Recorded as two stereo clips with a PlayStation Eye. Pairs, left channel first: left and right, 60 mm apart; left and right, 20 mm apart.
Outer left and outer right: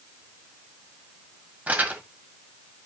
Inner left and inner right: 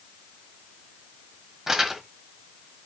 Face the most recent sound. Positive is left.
turn(degrees=-25)  # may be behind; listen again after turning